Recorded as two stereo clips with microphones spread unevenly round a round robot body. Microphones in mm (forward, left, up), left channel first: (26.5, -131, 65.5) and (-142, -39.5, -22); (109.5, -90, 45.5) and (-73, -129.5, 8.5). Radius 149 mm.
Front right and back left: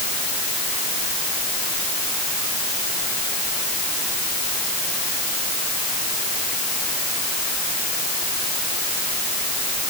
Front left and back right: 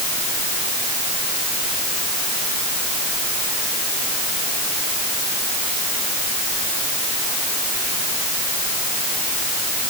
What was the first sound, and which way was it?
Only background noise.